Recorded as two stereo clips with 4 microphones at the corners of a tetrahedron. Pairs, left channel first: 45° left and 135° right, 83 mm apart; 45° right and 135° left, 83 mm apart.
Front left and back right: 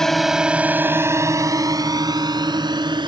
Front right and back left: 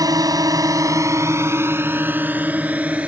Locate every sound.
0.0 s a drone: 125° left; by 3.1 s 150° right